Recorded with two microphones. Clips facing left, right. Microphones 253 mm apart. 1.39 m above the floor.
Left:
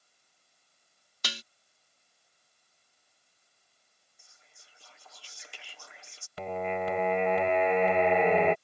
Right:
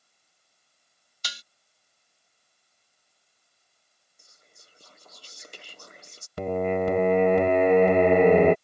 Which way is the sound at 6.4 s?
50° right (ahead or behind).